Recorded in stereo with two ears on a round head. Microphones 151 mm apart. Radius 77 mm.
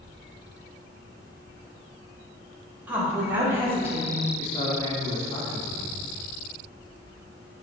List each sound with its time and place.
2.9 s a woman speaking: 10° right (ahead or behind), 2.5 m; by 4.3 s 15° right (ahead or behind), 1.6 m
4.4 s a man speaking: 25° left (ahead or behind), 2.5 m